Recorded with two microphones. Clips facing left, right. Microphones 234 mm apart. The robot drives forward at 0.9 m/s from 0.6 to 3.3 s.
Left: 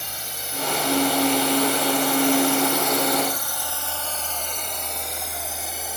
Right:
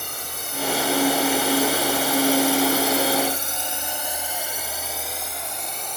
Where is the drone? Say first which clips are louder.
Right 2 dB; 55° right (ahead or behind); by 6.0 s 5° left (ahead or behind).